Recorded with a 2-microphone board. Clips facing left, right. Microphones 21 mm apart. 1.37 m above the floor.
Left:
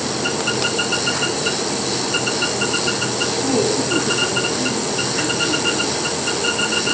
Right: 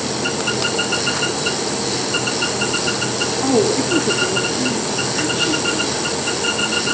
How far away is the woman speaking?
About 4 m.